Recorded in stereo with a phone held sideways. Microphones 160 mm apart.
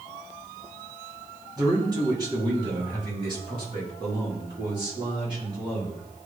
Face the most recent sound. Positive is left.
turn(degrees=-35)  # may be behind; listen again after turning